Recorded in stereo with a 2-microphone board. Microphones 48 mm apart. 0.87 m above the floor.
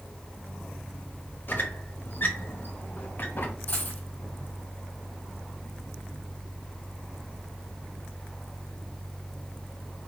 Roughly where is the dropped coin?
Left.